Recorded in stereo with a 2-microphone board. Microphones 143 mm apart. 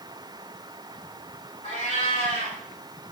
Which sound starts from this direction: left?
A cat meowing, at 1.6 s.